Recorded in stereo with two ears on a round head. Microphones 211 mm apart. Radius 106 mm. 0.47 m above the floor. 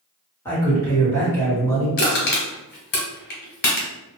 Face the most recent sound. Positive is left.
turn(degrees=40)  # may be behind; listen again after turning